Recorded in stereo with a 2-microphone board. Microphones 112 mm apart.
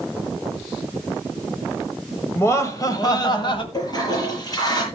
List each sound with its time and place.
2.4 s laughter: 25° left (ahead or behind), 1.8 m; by 3.6 s 50° left (ahead or behind), 2.5 m
3.7 s a toilet flushing: 35° left (ahead or behind), 8 m